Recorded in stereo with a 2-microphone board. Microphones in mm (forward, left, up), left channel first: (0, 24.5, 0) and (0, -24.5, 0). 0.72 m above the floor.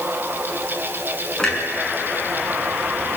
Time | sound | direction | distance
1.4 | a clunk | 10° left (ahead or behind) | 6 m